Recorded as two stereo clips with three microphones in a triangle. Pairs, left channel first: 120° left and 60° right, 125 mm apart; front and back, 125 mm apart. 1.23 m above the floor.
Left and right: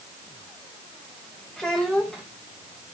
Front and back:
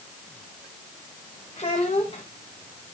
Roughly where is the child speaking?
Ahead left.